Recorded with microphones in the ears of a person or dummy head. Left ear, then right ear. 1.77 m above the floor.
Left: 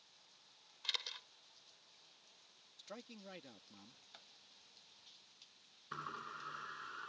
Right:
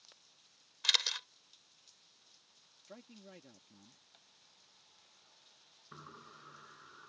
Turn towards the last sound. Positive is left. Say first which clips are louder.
# left 8 dB
turn(degrees=70)  # may be behind; listen again after turning